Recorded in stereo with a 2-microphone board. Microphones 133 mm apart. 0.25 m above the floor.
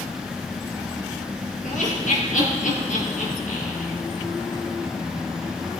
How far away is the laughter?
About 5 m.